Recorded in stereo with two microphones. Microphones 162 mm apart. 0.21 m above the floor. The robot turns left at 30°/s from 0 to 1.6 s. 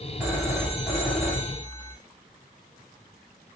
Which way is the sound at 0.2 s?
5° right (ahead or behind).